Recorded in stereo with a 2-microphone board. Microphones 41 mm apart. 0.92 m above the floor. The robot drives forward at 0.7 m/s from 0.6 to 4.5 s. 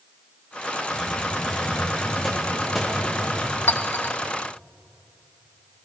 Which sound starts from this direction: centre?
A hiss, at 0.9 s.